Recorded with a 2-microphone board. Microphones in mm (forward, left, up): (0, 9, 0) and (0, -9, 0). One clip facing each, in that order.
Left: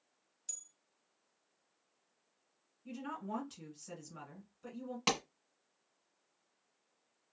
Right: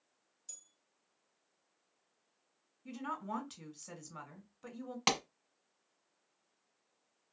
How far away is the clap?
About 1.0 m.